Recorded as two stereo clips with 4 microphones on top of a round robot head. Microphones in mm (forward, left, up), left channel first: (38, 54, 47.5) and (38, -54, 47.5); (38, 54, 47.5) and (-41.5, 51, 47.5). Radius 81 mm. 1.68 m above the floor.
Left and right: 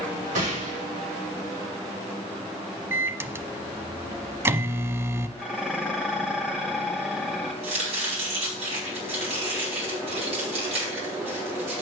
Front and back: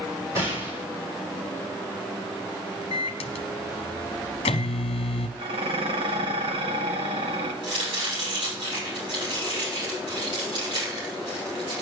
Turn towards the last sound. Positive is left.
turn(degrees=-130)